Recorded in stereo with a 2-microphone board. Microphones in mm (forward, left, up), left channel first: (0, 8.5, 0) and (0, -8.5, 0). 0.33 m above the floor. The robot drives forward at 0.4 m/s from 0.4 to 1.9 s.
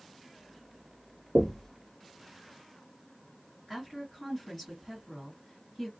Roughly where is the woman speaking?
Centre.